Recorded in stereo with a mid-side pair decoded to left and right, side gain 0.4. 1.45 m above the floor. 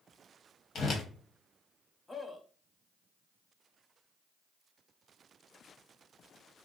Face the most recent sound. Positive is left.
turn(degrees=25)